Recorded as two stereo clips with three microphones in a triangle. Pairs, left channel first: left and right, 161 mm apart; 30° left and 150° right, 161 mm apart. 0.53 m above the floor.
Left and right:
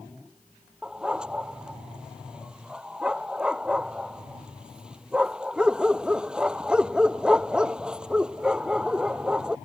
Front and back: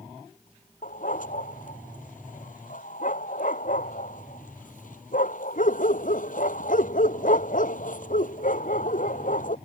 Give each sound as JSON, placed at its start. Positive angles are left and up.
{"t": 0.8, "sound": "a dog barking", "azimuth_deg": -5}